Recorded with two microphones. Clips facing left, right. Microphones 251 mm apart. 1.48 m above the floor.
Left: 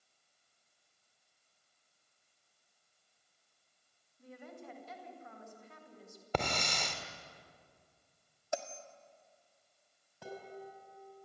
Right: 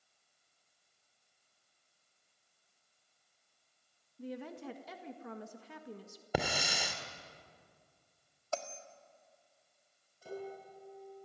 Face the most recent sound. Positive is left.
turn(degrees=75)  # may be behind; listen again after turning